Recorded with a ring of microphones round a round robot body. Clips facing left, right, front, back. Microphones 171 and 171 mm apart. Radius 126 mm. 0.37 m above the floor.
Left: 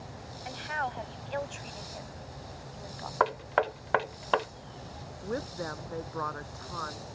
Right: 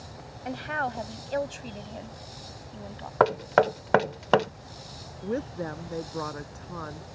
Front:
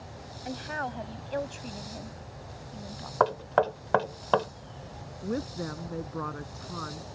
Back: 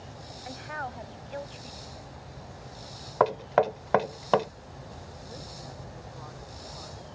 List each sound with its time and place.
0.5 s a woman speaking: 60° right; by 3.1 s 30° right
3.2 s knocking: 105° right
5.2 s a woman speaking: 25° right